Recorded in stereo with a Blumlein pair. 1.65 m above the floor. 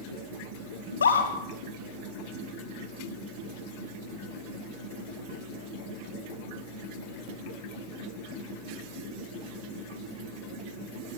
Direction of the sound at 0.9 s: 70° left.